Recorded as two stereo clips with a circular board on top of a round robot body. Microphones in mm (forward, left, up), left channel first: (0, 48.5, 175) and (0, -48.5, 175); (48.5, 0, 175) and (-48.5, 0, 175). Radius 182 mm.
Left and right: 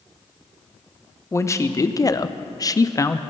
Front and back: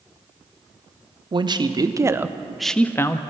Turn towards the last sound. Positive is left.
turn(degrees=40)